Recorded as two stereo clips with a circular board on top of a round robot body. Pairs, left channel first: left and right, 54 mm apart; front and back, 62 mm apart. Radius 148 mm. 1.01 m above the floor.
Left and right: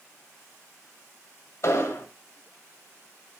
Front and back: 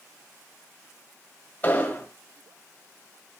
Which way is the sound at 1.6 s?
60° left.